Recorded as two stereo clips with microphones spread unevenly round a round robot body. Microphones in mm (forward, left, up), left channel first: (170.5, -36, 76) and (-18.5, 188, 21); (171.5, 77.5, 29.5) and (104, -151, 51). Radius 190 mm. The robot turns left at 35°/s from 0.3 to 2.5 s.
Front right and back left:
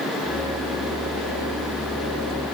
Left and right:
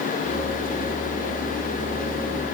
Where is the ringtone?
I don't hear a ringtone.